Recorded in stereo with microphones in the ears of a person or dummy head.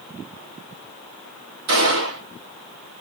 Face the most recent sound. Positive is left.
turn(degrees=-70)  # may be behind; listen again after turning